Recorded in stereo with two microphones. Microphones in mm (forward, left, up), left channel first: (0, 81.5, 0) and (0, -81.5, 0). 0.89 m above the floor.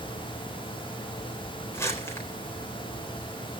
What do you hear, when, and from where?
1.7 s crumpling: 15° left (ahead or behind), 4 m